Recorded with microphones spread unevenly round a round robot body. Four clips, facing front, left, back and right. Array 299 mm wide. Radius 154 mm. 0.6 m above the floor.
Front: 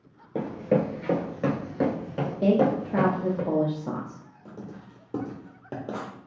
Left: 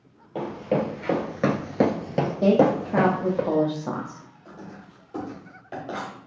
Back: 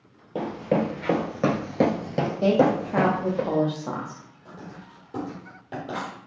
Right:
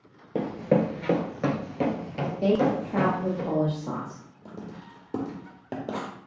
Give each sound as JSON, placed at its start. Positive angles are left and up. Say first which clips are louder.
{"t": 0.3, "sound": "running footsteps", "louder": "right 1 dB, even", "azimuth_deg": -75, "distance_m": 0.8}
{"t": 2.4, "sound": "a woman speaking", "louder": "left 4 dB, back 1 dB", "azimuth_deg": 75, "distance_m": 0.7}
{"t": 4.5, "sound": "writing", "louder": "right 2 dB, front 1 dB", "azimuth_deg": -60, "distance_m": 1.0}